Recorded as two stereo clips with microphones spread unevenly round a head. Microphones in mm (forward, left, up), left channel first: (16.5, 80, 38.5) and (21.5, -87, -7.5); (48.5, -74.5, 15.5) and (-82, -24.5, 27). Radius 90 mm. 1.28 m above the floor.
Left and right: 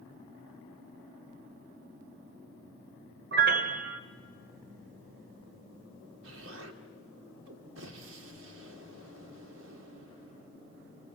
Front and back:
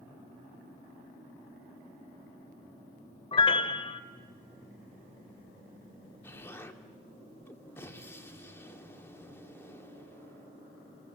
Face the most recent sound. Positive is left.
turn(degrees=-95)